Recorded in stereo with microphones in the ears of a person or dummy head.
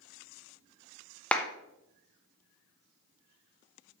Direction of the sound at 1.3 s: 10° left (ahead or behind).